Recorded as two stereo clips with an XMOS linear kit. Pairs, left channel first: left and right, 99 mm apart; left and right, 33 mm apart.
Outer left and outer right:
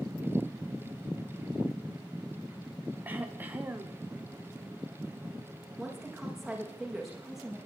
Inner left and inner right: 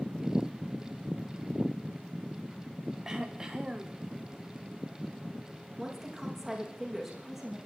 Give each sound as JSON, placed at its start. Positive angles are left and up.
{"t": 3.0, "sound": "throat clearing", "side_deg": -20, "distance_m": 2.5}
{"t": 5.8, "sound": "a woman speaking", "side_deg": -5, "distance_m": 7.5}